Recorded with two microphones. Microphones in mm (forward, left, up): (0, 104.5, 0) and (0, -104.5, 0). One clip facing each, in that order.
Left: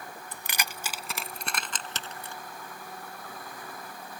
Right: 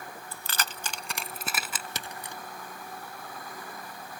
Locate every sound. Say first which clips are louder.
0.3 s keys jangling: right 1 dB; 20° left (ahead or behind); by 2.4 s 15° right (ahead or behind)